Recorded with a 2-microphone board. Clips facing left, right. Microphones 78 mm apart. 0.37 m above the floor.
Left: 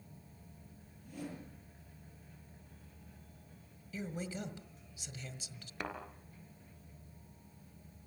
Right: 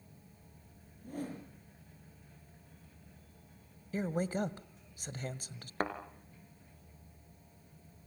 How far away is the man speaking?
About 1.8 m.